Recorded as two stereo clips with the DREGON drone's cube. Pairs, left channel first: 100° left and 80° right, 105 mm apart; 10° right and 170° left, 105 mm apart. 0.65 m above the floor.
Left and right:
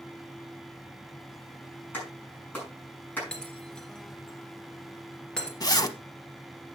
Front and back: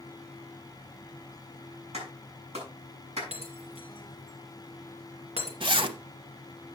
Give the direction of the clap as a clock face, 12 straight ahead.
6 o'clock.